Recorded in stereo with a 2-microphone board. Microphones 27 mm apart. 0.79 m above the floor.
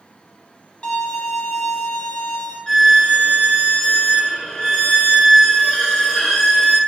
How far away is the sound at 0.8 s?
About 0.7 m.